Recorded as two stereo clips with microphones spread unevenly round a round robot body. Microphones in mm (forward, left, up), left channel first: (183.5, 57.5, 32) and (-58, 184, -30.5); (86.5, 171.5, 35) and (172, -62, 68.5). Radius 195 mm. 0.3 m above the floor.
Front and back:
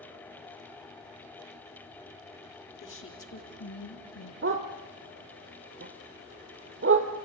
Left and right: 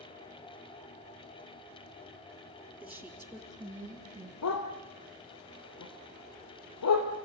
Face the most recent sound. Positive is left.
turn(degrees=110)